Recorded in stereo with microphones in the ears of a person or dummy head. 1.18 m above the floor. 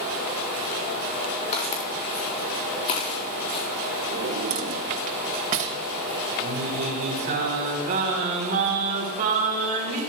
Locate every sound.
1.5 s footsteps: 40° left (ahead or behind), 5.5 m; by 3.7 s 35° left (ahead or behind), 3.5 m
4.1 s a drawer: 35° right (ahead or behind), 1.3 m
6.4 s singing: 40° right (ahead or behind), 3.5 m